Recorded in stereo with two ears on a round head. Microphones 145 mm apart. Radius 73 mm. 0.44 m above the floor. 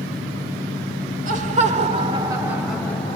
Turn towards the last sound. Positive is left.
turn(degrees=20)  # may be behind; listen again after turning